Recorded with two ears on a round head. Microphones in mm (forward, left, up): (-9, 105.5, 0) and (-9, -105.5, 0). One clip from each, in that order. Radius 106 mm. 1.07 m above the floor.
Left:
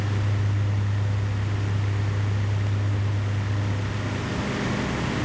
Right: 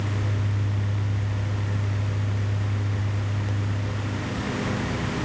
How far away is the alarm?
No alarm in this recording.